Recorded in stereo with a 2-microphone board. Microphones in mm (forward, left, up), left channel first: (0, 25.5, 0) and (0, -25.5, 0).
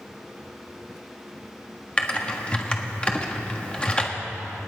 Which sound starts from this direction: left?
Typing on a keyboard, at 2.0 s.